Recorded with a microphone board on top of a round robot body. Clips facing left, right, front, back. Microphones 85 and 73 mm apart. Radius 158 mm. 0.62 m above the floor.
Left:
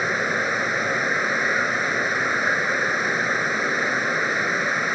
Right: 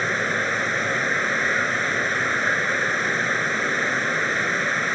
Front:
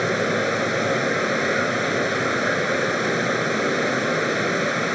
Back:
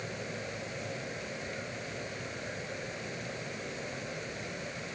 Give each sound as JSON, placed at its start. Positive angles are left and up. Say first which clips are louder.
{"t": 0.0, "sound": "running water", "louder": "left 1 dB, front 18 dB", "azimuth_deg": 10}